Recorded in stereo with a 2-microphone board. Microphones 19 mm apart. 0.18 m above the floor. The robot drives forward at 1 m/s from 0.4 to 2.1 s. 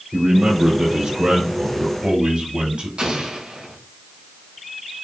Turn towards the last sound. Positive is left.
turn(degrees=-80)